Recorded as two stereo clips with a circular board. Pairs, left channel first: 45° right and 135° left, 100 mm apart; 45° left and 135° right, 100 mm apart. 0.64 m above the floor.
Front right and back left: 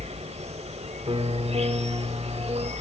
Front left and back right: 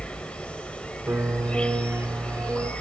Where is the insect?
125° left, 1.0 m.